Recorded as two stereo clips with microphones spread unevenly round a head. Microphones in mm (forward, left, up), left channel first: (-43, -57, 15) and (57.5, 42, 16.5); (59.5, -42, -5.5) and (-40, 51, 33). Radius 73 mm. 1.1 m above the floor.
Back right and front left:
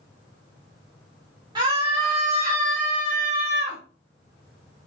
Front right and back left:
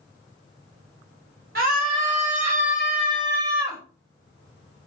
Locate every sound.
1.6 s a scream: 110° left, 2 m; by 3.8 s 65° left, 1.7 m